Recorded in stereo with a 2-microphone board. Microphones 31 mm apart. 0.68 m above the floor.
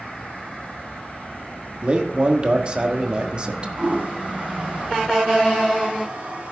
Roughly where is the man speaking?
Right.